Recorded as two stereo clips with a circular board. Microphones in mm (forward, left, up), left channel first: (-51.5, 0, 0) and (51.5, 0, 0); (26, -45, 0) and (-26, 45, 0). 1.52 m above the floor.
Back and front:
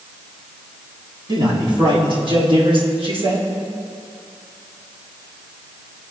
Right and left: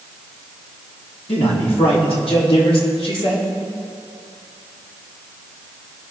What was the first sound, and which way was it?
A man speaking, 45° right.